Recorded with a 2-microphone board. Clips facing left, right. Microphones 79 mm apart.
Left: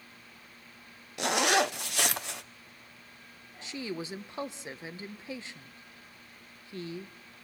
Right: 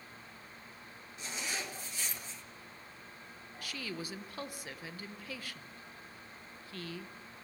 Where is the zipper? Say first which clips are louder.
Left 16 dB; 65° left (ahead or behind), 0.6 m.